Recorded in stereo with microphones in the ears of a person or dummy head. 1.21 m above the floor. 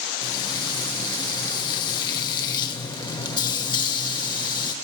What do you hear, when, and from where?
0.2 s frying: 20° left (ahead or behind), 0.8 m